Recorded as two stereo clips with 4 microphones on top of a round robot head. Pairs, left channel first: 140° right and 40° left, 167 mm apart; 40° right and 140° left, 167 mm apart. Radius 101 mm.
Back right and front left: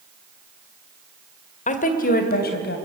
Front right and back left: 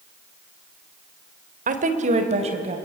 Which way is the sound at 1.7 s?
175° left.